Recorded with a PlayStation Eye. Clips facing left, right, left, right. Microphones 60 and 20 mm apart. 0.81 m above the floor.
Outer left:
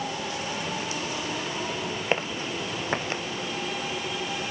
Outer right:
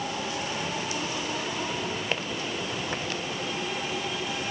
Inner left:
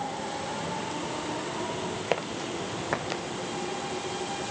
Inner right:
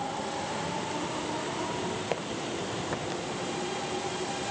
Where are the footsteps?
25° left (ahead or behind); by 3.2 s 30° left (ahead or behind).